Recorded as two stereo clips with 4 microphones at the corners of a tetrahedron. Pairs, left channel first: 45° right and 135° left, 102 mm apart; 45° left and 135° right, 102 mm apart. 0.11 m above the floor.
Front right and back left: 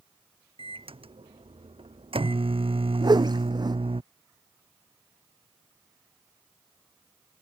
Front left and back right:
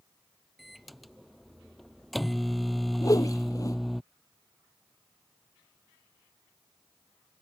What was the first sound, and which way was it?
A microwave, 135° left.